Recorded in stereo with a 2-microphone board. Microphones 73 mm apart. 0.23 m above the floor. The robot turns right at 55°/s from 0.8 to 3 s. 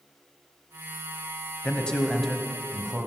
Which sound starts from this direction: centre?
A man speaking, at 1.6 s.